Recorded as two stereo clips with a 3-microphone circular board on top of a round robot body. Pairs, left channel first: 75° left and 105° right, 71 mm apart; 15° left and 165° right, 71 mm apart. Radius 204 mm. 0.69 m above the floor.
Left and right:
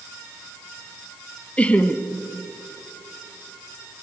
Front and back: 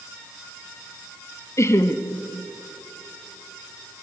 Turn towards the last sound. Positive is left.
turn(degrees=10)